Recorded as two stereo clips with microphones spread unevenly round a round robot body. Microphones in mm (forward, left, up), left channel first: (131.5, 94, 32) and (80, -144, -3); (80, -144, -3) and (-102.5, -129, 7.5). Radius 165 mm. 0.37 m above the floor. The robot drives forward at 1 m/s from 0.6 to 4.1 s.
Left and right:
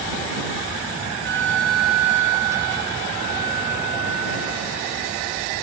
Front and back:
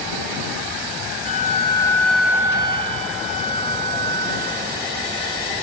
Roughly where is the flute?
Ahead right.